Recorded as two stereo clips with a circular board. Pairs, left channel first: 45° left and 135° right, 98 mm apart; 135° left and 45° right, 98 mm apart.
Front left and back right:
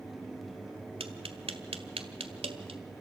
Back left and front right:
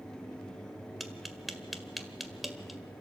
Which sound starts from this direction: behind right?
Tapping, at 1.0 s.